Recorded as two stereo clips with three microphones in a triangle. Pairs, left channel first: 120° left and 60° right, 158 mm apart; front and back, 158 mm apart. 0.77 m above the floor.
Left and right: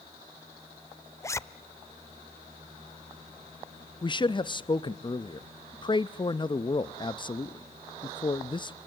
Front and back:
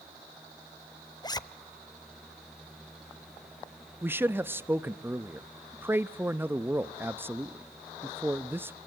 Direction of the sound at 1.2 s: 55° left.